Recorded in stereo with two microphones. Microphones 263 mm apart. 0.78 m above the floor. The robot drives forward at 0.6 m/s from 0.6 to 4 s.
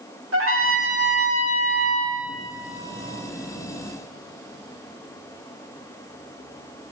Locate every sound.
0.3 s a trumpet: 55° right (ahead or behind), 1.5 m; by 2.1 s 65° right (ahead or behind), 1.4 m